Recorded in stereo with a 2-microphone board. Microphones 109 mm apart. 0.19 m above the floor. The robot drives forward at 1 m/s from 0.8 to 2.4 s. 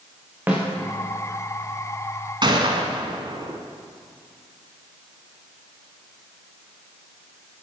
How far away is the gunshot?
About 1.1 m.